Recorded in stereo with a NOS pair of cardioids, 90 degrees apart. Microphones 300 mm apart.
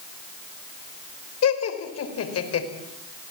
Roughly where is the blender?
I don't hear a blender.